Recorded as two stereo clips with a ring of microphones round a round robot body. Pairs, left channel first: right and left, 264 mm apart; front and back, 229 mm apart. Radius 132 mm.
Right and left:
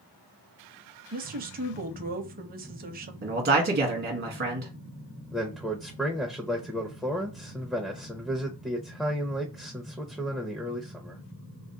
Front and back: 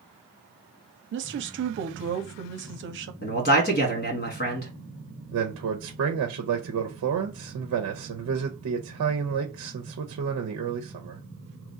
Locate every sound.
1.1 s a woman speaking: 145° left, 0.7 m
3.2 s a man speaking: 40° left, 1.5 m
5.3 s a man speaking: straight behind, 0.6 m